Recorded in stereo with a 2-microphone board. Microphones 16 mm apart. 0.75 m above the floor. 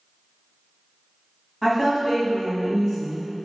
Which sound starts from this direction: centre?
A woman speaking, at 1.6 s.